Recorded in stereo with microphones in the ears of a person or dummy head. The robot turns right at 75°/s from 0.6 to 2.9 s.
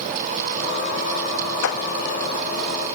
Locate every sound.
1.6 s a clap: 70° left (ahead or behind), 1.9 m; by 1.8 s 60° left (ahead or behind), 1.9 m